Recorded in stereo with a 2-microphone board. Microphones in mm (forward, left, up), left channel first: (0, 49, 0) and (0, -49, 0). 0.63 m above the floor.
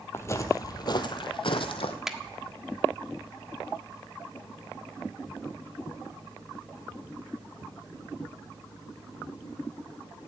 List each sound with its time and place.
0.1 s footsteps: 25° left (ahead or behind), 1.3 m; by 2.0 s 70° left (ahead or behind), 1.7 m
2.1 s a finger snap: 5° right (ahead or behind), 1.3 m